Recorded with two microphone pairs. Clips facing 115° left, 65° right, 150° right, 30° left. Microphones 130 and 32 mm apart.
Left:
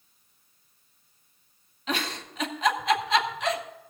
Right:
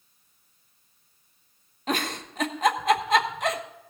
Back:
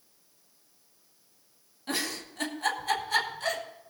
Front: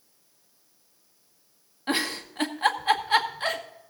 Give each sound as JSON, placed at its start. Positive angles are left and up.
{"t": 1.9, "sound": "a giggle", "azimuth_deg": -25, "distance_m": 1.2}